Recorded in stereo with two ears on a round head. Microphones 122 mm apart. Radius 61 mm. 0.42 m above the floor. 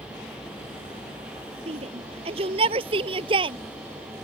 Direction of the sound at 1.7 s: 45° right (ahead or behind).